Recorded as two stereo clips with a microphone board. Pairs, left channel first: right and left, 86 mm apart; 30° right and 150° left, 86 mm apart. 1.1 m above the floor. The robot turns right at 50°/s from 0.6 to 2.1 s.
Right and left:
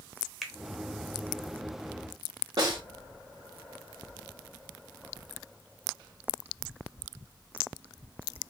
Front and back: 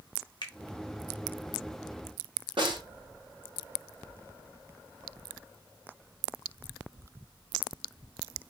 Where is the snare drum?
130° left, 2.5 m.